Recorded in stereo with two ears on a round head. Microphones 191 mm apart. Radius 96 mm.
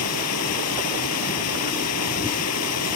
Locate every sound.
0.0 s running water: 85° left